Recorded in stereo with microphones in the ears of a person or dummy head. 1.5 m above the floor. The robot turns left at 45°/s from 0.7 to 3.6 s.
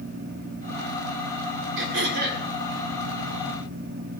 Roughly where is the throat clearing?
Right.